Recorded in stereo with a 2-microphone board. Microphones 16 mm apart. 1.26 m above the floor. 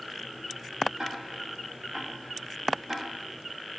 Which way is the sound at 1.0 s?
45° right (ahead or behind).